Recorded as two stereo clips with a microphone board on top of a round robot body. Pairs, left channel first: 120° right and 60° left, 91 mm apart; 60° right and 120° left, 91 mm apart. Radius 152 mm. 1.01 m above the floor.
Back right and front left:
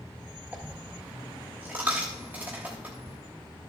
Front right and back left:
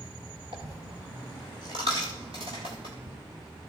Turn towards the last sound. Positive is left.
turn(degrees=130)